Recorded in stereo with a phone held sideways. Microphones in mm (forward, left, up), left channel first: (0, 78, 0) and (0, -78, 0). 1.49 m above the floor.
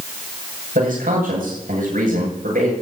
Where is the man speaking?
75° right (ahead or behind), 9 m.